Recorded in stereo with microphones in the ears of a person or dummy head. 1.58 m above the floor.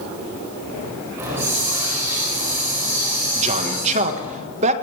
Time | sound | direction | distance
1.2 | a hiss | 15° right (ahead or behind) | 4.5 m
3.4 | a man speaking | 35° right (ahead or behind) | 1.6 m